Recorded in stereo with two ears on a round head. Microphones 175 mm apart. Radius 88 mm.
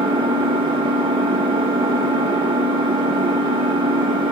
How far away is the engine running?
About 1.2 m.